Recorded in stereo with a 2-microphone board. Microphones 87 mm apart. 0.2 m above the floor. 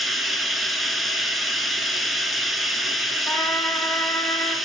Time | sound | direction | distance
0.0 | running water | centre (ahead or behind) | 0.8 m
3.3 | a trumpet | 15° left (ahead or behind) | 1.8 m